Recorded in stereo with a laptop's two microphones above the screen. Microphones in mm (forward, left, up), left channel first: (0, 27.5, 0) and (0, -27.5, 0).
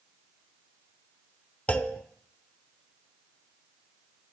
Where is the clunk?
25° left (ahead or behind), 0.6 m.